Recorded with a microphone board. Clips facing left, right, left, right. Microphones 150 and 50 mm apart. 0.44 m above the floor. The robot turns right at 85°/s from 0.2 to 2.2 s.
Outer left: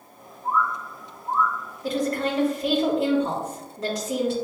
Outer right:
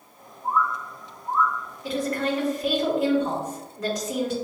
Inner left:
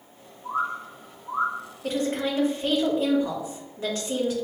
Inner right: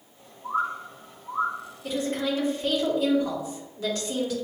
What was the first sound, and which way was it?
A bird, 45° right (ahead or behind).